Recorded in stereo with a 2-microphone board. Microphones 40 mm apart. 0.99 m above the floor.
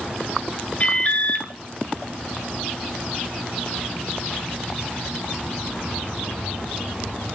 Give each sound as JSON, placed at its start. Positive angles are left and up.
{"t": 0.8, "sound": "an alarm", "side_deg": 35, "distance_m": 2.0}